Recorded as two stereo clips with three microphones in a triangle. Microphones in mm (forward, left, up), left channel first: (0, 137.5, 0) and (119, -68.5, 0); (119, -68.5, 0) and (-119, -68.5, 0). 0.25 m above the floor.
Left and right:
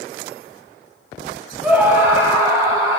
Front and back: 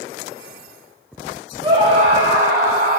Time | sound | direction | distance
1.6 | a scream | 145° right | 1.7 m